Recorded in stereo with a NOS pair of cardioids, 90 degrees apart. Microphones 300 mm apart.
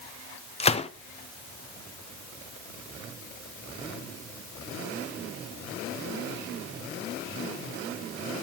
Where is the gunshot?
20° left, 0.8 m.